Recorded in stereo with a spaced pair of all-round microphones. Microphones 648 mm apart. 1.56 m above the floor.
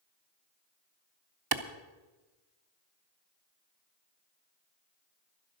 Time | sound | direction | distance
1.5 | a clap | 35° right (ahead or behind) | 0.7 m